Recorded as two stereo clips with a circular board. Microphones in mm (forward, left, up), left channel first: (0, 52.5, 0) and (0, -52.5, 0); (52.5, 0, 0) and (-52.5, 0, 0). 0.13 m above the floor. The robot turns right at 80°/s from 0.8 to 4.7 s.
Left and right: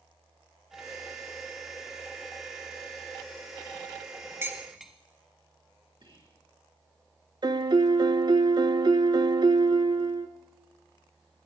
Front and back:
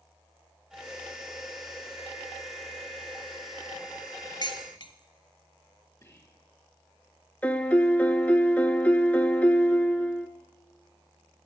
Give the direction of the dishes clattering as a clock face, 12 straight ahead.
1 o'clock.